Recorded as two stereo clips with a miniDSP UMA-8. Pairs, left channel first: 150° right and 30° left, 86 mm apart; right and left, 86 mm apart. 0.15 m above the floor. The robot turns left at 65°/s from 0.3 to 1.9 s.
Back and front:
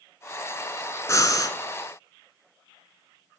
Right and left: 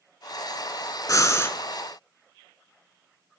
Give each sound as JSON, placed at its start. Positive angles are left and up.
{"t": 1.1, "sound": "breathing", "azimuth_deg": -115, "distance_m": 0.7}